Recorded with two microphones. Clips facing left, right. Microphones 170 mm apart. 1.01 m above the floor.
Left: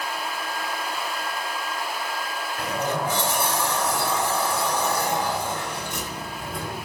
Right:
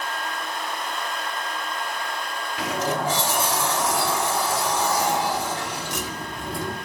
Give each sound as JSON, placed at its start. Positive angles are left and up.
{"t": 2.6, "sound": "a sliding door", "side_deg": -85, "distance_m": 1.4}